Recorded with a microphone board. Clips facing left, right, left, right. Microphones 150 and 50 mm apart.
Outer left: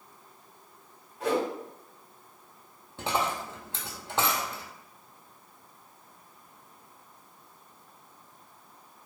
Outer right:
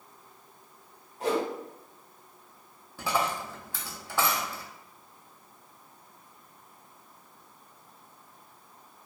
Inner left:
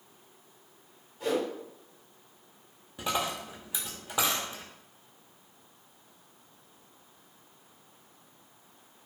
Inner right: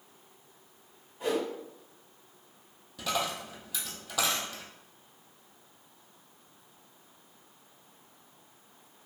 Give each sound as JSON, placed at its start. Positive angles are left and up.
{"t": 1.2, "sound": "a whoosh", "side_deg": -30, "distance_m": 1.5}
{"t": 3.0, "sound": "a dropped coin", "side_deg": 25, "distance_m": 0.7}